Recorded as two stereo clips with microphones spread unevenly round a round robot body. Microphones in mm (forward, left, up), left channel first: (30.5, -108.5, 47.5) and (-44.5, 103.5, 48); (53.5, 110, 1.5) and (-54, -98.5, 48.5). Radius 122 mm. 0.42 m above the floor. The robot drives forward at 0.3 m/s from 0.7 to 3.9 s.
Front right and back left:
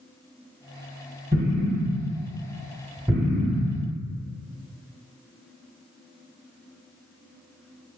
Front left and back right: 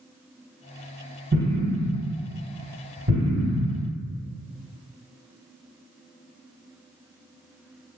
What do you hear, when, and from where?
1.3 s an explosion: 170° right, 1.4 m; by 3.9 s 175° right, 1.9 m